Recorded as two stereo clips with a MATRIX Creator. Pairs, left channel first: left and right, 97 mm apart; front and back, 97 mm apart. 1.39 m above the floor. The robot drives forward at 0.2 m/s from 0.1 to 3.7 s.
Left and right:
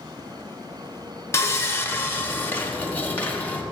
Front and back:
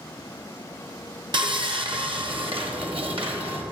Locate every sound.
1.3 s sawing: 150° left, 0.8 m; by 3.6 s 160° left, 1.2 m